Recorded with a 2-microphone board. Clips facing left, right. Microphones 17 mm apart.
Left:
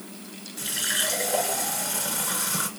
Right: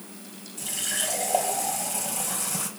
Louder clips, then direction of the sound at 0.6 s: Left 3 dB; 70° left (ahead or behind).